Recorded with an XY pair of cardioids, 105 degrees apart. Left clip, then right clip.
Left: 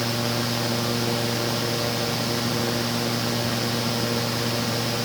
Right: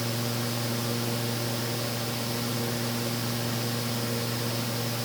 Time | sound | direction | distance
0.0 | a fan | 50° left | 1.1 m